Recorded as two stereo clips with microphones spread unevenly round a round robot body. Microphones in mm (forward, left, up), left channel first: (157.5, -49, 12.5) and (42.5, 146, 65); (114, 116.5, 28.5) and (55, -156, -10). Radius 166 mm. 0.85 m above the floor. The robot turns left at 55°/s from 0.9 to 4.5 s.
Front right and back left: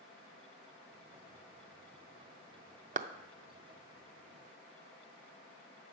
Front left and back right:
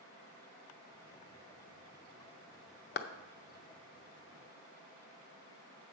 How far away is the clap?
About 0.5 m.